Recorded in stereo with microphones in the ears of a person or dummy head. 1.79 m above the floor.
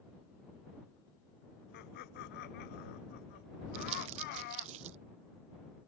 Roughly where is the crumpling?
Right.